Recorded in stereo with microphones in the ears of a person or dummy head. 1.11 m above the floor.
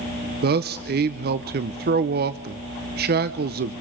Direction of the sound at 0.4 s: 45° right (ahead or behind).